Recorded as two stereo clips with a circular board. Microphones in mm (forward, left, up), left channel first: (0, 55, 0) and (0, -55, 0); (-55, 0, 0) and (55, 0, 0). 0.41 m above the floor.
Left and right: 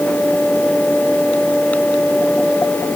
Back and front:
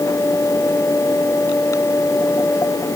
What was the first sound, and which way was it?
Only background noise.